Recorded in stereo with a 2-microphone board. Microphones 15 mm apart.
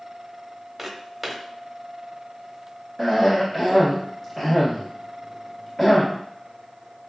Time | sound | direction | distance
0.8 | footsteps | 20° right (ahead or behind) | 1.1 m
3.0 | a cough | 25° left (ahead or behind) | 1.3 m